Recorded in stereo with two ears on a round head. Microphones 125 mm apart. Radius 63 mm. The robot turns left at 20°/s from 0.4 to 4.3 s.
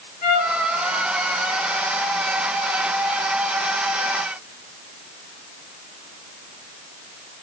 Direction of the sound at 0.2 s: 50° left (ahead or behind).